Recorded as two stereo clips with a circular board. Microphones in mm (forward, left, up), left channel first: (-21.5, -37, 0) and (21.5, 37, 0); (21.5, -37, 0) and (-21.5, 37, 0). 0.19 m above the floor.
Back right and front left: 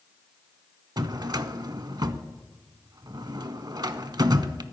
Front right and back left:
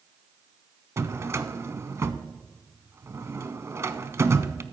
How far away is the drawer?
About 0.5 m.